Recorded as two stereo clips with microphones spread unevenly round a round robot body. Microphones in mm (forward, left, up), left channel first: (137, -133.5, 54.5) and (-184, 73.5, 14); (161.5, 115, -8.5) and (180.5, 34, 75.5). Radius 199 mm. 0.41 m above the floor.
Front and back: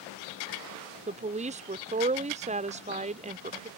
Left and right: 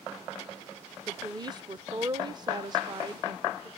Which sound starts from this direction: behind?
A woman speaking, at 1.1 s.